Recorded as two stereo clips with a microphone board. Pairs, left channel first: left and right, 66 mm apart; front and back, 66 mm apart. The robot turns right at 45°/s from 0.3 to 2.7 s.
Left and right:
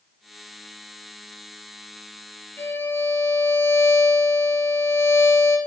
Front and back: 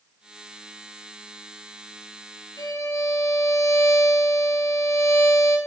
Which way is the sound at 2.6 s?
35° left.